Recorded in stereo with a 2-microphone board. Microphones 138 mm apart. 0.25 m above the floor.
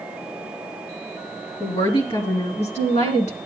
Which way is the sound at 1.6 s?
30° left (ahead or behind).